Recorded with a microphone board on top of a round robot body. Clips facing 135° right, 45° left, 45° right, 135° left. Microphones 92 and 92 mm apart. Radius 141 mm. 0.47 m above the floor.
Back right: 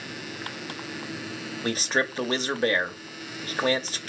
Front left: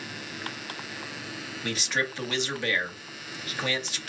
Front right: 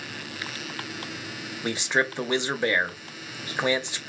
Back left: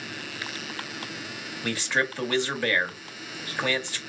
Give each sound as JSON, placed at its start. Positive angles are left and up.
{"t": 1.6, "sound": "a man speaking", "azimuth_deg": -105, "distance_m": 0.9}